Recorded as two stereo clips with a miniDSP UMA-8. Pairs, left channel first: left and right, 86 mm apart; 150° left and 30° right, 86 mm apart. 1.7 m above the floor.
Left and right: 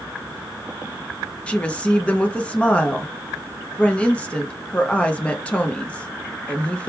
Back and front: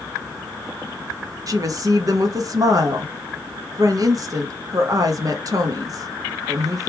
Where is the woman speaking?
15° left, 0.9 m.